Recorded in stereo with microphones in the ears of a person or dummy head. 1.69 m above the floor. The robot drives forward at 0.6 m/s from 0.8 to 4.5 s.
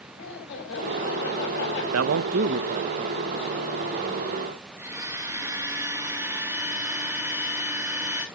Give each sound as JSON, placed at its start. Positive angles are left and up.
{"t": 0.2, "sound": "laughter", "side_deg": 70, "distance_m": 6.5}
{"t": 1.9, "sound": "a man speaking", "side_deg": -80, "distance_m": 0.5}
{"t": 4.8, "sound": "a blender", "side_deg": -15, "distance_m": 1.9}